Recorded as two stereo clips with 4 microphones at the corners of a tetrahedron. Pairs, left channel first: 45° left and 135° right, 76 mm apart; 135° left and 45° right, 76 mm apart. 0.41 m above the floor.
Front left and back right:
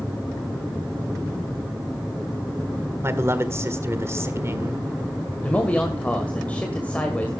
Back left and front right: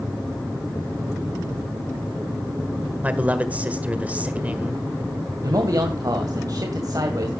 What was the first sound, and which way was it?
A man speaking, 105° right.